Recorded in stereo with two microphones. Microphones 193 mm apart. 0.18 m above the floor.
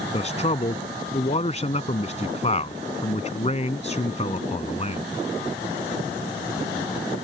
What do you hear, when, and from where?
0.1 s a man speaking: 35° left (ahead or behind)